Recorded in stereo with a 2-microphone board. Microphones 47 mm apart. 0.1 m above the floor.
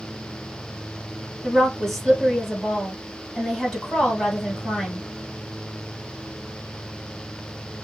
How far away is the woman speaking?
About 2.5 m.